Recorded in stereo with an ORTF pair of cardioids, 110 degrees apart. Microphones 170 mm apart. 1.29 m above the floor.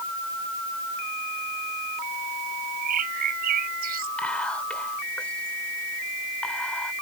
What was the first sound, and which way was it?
A bird, 60° right.